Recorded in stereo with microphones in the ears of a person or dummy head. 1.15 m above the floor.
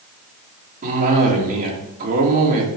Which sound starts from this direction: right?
A cough, at 0.8 s.